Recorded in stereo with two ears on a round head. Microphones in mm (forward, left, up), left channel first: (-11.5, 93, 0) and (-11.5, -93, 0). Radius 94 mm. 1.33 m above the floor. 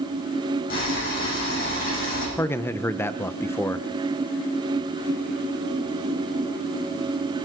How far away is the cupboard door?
No cupboard door in this recording.